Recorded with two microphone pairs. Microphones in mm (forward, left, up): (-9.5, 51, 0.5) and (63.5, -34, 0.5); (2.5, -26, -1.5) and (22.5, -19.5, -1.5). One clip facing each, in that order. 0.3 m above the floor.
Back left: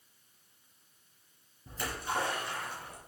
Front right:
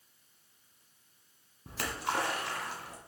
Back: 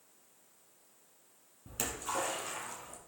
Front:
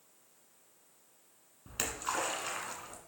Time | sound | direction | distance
1.7 | a splash | 45° right | 2 m